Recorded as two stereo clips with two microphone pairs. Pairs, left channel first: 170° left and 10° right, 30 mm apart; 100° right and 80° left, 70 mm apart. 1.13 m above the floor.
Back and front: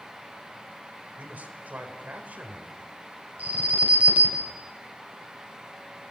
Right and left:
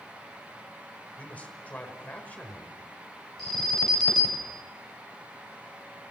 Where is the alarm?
20° right, 8.5 m.